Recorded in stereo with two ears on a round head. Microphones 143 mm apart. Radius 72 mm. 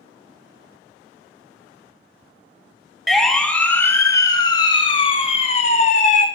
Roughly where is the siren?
Centre.